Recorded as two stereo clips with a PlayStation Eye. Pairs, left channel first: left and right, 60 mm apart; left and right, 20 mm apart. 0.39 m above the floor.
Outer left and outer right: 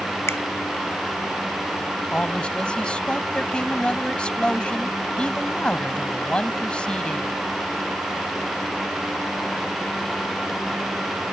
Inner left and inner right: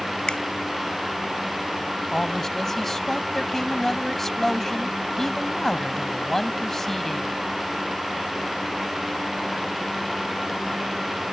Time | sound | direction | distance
0.3 | a finger snap | 50° left (ahead or behind) | ?
2.1 | a man speaking | 15° left (ahead or behind) | ?